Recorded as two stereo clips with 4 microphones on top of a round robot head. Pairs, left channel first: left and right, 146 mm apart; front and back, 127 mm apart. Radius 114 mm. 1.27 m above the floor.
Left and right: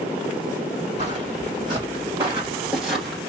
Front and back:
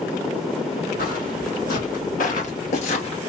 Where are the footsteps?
25° right, 3 m; by 3.2 s 5° left, 1.5 m.